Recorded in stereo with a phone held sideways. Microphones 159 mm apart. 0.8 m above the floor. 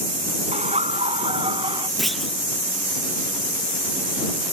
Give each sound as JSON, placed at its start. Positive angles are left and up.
{"t": 0.5, "sound": "laughter", "side_deg": -45}
{"t": 2.0, "sound": "a clunk", "side_deg": 0}